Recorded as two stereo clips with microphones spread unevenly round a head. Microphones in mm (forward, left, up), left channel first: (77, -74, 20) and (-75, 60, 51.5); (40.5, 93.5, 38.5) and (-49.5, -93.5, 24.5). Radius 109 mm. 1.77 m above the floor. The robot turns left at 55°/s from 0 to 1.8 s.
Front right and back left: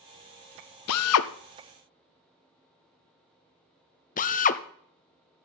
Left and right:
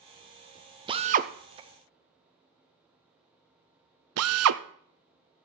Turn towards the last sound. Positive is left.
turn(degrees=-95)